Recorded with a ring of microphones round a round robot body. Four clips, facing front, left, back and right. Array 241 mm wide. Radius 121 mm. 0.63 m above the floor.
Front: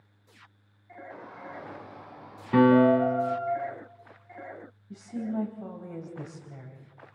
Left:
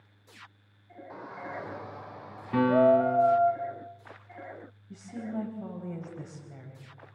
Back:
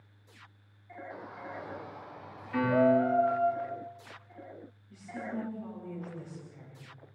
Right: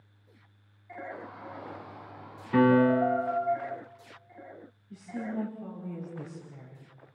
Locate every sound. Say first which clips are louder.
1.1 s a shout: left 2 dB, front 1 dB; 85° left, 3 m; by 3.5 s 105° left, 4.5 m
2.5 s a piano: even, front 6 dB; 5° left, 3.5 m
4.9 s a woman speaking: right 1 dB, front 6 dB; 35° left, 4 m